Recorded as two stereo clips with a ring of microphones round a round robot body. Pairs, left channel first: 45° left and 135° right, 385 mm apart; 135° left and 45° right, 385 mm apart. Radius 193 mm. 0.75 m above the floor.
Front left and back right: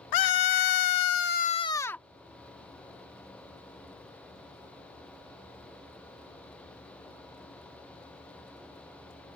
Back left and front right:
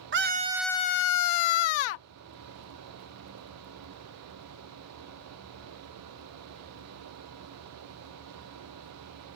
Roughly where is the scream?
Ahead.